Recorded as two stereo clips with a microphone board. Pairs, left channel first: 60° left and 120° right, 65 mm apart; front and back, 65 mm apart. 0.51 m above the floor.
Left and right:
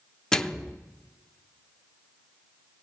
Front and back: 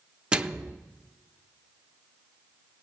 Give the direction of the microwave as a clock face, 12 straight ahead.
8 o'clock.